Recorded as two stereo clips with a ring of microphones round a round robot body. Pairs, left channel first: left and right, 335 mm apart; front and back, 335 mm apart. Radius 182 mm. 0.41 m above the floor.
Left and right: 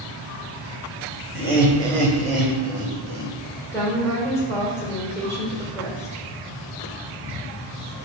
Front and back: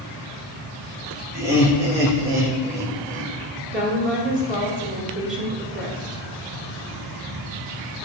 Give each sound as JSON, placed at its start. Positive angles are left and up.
{"t": 1.3, "sound": "laughter", "azimuth_deg": 160, "distance_m": 1.9}
{"t": 3.7, "sound": "a woman speaking", "azimuth_deg": 165, "distance_m": 1.4}